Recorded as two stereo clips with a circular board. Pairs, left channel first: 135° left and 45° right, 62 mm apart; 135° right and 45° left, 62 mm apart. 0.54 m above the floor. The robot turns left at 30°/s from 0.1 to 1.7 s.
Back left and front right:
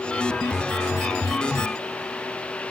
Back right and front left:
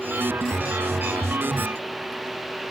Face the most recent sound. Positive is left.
No sound to turn to.